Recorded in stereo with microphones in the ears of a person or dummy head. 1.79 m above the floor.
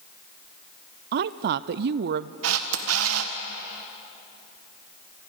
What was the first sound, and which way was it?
A woman speaking, 60° right (ahead or behind).